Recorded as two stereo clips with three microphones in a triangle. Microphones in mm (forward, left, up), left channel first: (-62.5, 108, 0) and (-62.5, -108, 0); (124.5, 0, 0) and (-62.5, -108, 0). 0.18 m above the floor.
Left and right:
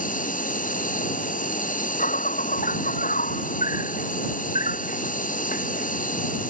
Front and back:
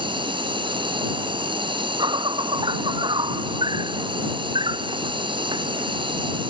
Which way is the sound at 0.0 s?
145° left.